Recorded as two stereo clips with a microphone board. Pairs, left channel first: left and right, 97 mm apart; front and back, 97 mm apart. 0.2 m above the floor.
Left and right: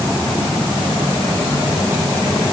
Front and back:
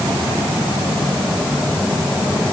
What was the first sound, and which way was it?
Only background noise.